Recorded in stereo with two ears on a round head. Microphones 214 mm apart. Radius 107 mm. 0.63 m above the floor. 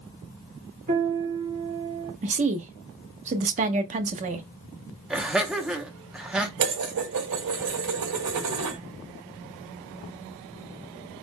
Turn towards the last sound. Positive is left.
turn(degrees=-75)  # may be behind; listen again after turning